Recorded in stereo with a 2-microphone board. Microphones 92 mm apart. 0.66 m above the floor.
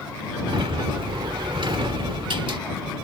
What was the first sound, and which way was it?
A sliding door, 65° right (ahead or behind).